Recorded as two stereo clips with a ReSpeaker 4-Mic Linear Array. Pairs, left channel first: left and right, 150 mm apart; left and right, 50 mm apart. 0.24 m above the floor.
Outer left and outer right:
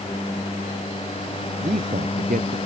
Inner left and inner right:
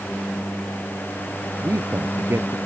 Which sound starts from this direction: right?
A man speaking, at 1.6 s.